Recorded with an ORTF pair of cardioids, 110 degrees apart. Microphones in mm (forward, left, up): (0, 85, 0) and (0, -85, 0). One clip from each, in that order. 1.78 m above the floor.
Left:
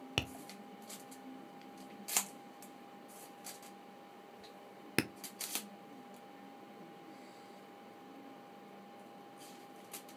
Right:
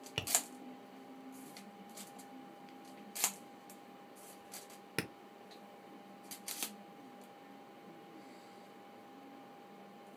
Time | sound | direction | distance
0.2 | tapping | 20° left | 0.6 m